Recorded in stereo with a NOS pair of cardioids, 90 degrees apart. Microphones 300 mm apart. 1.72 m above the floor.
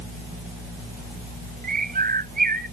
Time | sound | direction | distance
1.6 | a bird | 30° right | ?